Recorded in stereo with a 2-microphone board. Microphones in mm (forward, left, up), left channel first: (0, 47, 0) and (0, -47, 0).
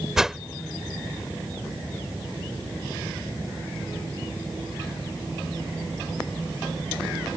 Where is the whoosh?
5° right (ahead or behind).